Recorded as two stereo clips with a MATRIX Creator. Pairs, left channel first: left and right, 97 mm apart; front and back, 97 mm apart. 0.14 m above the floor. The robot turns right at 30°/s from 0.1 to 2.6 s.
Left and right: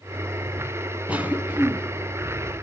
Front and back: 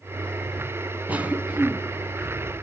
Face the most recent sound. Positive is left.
turn(degrees=-95)